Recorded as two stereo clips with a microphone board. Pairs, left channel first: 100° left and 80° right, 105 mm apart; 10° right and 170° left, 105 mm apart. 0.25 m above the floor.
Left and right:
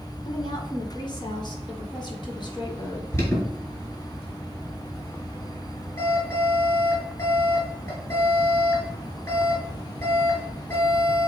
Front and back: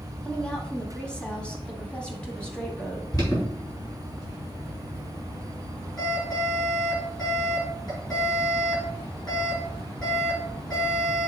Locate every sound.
0.2 s a woman speaking: 70° left, 2.0 m
3.1 s an alarm: 40° left, 4 m